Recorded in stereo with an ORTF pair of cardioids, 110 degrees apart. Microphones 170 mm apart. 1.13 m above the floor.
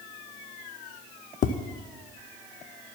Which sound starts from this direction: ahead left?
Tapping, at 1.4 s.